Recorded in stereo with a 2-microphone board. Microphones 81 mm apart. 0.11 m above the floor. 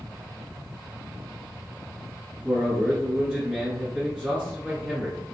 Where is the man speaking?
10° right (ahead or behind), 1.2 m.